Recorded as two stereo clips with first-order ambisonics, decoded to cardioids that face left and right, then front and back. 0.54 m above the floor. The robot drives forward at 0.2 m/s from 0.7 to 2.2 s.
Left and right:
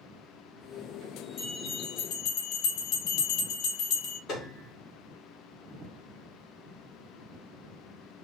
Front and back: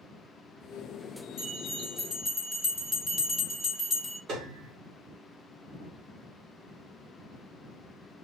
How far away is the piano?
About 1.1 m.